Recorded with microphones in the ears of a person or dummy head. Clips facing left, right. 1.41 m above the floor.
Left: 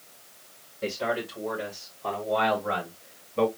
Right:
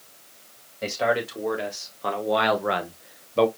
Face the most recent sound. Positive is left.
turn(degrees=-50)  # may be behind; listen again after turning